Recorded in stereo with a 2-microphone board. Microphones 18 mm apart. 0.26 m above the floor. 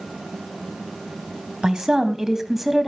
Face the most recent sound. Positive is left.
turn(degrees=-10)  # may be behind; listen again after turning